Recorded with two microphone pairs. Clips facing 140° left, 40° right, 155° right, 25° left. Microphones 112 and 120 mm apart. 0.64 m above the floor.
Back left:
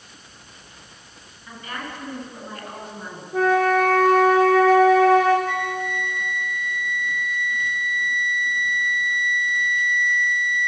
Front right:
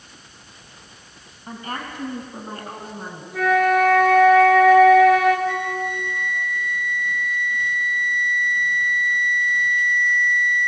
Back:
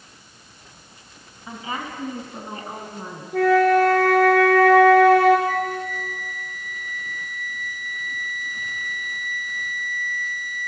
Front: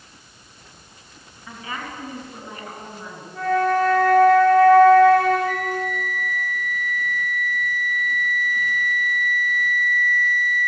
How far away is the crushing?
I don't hear crushing.